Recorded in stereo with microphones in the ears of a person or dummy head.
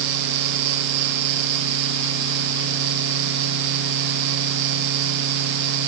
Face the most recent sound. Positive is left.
No sound to turn to.